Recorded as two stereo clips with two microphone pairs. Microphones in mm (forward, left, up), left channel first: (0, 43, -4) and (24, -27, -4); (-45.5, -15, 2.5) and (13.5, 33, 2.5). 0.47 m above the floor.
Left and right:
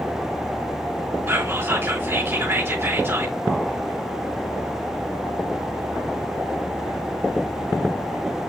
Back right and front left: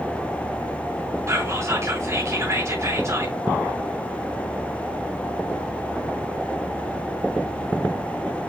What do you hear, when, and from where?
1.3 s whispering: 10° right, 4.5 m